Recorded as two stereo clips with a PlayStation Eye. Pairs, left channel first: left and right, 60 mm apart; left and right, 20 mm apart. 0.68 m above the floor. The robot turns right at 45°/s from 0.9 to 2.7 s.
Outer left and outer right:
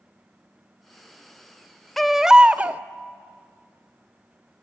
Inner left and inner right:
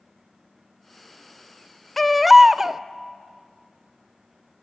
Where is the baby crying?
175° left, 0.7 m; by 2.8 s 150° right, 0.7 m.